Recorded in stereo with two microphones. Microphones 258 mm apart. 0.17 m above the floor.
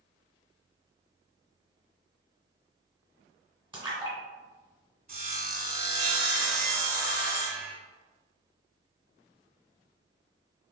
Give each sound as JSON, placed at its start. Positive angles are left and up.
{"t": 3.7, "sound": "a splash", "side_deg": -20, "distance_m": 1.1}
{"t": 5.1, "sound": "sawing", "side_deg": -35, "distance_m": 0.7}